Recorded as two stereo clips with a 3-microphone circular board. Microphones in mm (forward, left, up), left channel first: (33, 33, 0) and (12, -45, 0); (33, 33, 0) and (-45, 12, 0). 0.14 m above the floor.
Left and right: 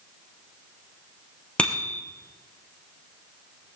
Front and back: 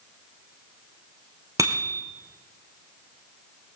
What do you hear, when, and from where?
1.6 s a bicycle bell: 150° left, 2.5 m